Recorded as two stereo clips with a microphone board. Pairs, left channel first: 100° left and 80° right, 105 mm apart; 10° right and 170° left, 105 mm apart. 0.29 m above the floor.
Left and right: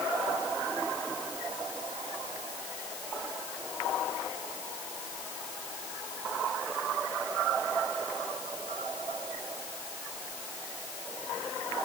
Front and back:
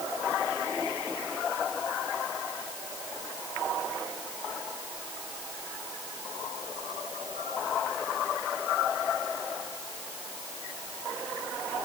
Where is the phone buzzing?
No phone buzzing in this recording.